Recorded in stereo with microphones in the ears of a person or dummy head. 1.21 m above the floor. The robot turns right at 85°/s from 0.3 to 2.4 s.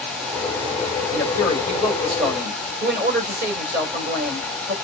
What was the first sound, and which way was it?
A man speaking, 115° left.